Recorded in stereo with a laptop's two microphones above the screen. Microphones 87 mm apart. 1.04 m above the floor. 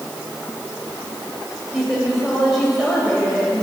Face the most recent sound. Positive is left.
turn(degrees=-5)  # may be behind; listen again after turning